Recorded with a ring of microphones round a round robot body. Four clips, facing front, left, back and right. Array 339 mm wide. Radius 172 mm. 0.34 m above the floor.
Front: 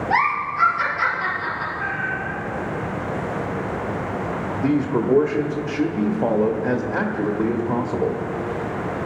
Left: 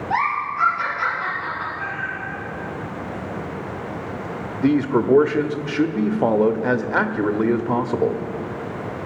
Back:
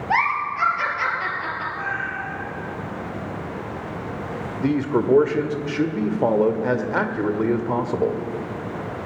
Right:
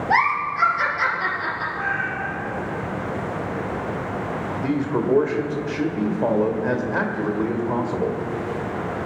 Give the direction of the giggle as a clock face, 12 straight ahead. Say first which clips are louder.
Right 2 dB, even; 4 o'clock.